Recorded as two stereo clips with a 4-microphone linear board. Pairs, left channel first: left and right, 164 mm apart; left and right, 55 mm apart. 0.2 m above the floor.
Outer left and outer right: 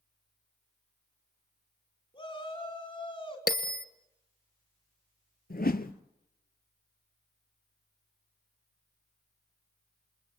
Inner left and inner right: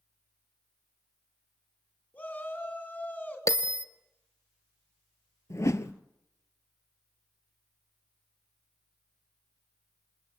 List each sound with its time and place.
2.1 s a shout: 30° left (ahead or behind), 2 m
3.5 s a bell: 70° left (ahead or behind), 1.3 m
5.5 s a whoosh: 65° left (ahead or behind), 1.1 m